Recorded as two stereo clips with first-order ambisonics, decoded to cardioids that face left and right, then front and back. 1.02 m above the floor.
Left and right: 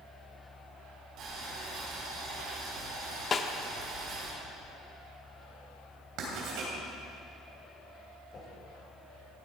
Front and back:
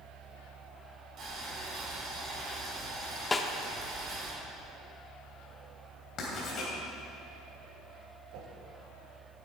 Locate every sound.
1.2 s boiling: 130° right, 3.5 m
3.3 s a snare drum: 60° left, 0.6 m
6.2 s writing: 60° right, 3 m
8.3 s a whoosh: 155° left, 1.7 m